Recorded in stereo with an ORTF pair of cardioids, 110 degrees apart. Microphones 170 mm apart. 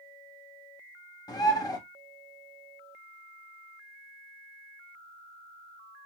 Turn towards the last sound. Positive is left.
turn(degrees=25)